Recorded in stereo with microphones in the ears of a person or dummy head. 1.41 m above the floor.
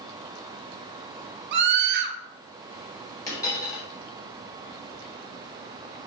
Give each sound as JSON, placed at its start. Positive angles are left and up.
{"t": 1.5, "sound": "a scream", "side_deg": -60, "distance_m": 0.6}
{"t": 3.3, "sound": "a dropped coin", "side_deg": 20, "distance_m": 2.0}